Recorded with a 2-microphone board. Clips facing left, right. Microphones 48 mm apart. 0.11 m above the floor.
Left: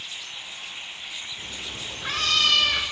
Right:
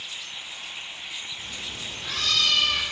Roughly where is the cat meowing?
Left.